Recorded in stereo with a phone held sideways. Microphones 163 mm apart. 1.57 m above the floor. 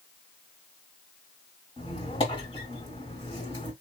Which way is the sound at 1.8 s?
30° left (ahead or behind).